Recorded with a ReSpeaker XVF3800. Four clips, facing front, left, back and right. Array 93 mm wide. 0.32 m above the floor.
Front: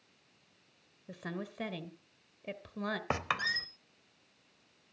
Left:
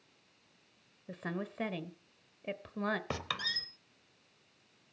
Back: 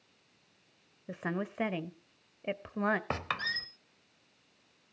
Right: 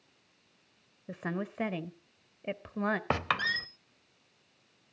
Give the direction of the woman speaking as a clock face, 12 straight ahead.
5 o'clock.